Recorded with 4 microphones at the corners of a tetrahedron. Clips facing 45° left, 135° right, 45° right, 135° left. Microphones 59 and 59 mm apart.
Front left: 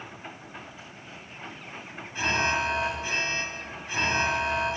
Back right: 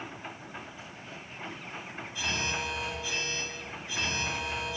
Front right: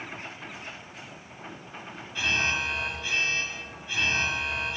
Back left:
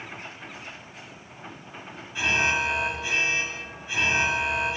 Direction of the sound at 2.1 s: 60° left.